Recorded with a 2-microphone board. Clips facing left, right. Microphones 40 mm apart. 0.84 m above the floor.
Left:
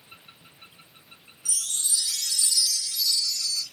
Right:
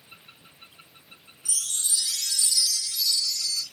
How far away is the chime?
About 1.0 m.